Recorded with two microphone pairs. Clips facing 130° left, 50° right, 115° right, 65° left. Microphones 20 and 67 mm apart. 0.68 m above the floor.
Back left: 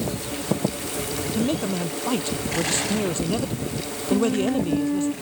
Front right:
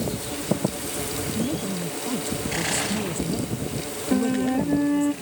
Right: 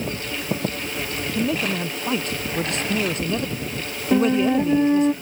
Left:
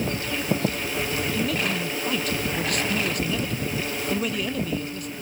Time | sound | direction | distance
1.4 | a man speaking | straight behind | ?
4.1 | a flute | 125° right | ?